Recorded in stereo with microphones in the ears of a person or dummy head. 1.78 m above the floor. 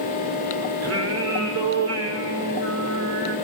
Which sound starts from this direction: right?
Singing, at 0.8 s.